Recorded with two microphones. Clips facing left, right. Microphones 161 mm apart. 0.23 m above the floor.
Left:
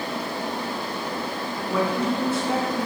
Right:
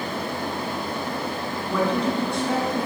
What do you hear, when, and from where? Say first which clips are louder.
1.7 s a woman speaking: right 1 dB; 10° left (ahead or behind), 2.5 m; by 2.9 s centre (ahead or behind), 3 m